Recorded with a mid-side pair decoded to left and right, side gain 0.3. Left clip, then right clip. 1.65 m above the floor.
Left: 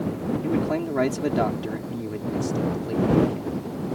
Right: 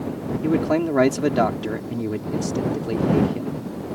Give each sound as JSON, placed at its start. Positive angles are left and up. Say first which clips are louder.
{"t": 0.4, "sound": "a man speaking", "louder": "right 6 dB", "azimuth_deg": -55}